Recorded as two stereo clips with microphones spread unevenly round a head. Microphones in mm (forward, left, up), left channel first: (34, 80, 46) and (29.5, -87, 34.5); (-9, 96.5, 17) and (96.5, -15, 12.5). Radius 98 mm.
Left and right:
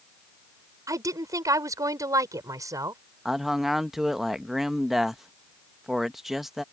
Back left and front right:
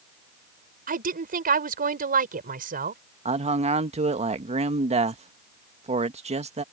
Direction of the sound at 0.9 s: 20° right.